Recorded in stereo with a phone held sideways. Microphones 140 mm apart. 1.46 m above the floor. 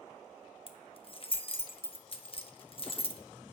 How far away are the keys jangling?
About 0.9 m.